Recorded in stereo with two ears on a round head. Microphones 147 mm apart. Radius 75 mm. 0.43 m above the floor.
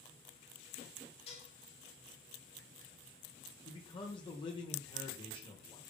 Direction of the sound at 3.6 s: 30° left (ahead or behind).